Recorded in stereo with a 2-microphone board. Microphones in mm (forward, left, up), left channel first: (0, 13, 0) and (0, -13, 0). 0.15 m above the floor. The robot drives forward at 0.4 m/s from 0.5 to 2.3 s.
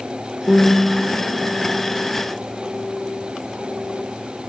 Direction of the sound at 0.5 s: 30° right (ahead or behind).